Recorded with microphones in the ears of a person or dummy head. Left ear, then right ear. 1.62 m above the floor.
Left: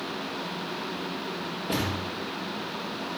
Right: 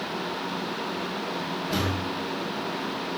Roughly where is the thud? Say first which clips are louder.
Even; left.